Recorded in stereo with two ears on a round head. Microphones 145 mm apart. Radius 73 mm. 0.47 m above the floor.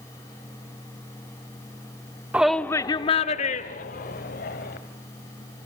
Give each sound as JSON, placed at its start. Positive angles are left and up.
{"t": 2.3, "sound": "a shout", "side_deg": -10, "distance_m": 0.9}